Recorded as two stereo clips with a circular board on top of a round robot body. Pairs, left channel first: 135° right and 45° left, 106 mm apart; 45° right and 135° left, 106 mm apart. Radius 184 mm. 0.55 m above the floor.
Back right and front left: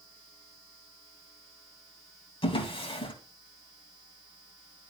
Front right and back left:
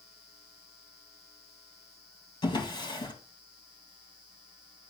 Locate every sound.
2.4 s a drawer: 90° right, 2.0 m